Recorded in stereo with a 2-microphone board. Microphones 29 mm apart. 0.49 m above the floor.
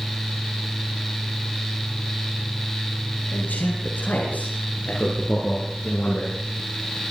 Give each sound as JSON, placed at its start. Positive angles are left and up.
{"t": 3.3, "sound": "a man speaking", "side_deg": 85, "distance_m": 7.0}